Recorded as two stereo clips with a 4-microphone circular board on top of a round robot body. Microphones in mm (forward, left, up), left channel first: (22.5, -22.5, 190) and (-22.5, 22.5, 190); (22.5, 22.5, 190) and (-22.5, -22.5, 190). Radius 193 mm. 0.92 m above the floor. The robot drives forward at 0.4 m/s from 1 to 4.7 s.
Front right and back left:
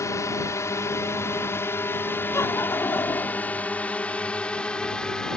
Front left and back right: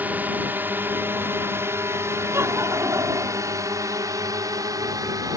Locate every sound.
0.0 s a drone: 75° right; by 5.4 s 125° right
2.3 s laughter: 85° right; by 3.6 s 95° right